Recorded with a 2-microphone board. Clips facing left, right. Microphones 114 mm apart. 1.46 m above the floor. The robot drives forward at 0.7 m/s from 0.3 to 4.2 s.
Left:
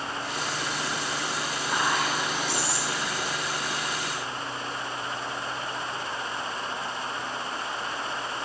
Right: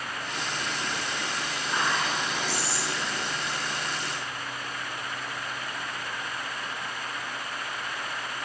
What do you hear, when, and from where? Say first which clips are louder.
1.7 s whispering: left 1 dB; 50° left (ahead or behind), 2.5 m; by 3.2 s 35° left (ahead or behind), 3 m